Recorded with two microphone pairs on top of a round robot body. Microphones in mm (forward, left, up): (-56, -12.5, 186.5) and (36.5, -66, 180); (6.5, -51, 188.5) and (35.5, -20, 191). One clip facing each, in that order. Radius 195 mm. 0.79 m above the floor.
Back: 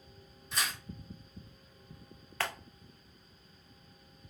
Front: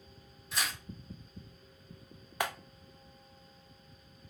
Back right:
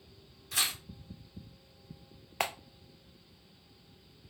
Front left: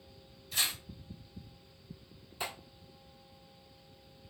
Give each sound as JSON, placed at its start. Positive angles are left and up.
{"t": 0.5, "sound": "tearing paper", "azimuth_deg": -120, "distance_m": 1.8}
{"t": 2.4, "sound": "a clap", "azimuth_deg": -105, "distance_m": 0.6}